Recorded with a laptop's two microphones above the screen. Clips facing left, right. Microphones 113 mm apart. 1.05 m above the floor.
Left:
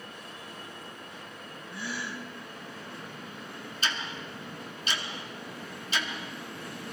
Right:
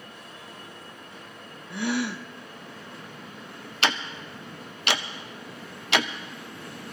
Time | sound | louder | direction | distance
1.7 | a gasp | right 10 dB | 70° right (ahead or behind) | 0.6 m
3.8 | ticking | right 7 dB | 70° right (ahead or behind) | 0.6 m